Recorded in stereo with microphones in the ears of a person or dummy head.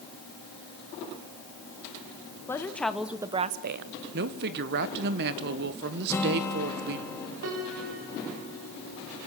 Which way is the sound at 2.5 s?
15° left (ahead or behind).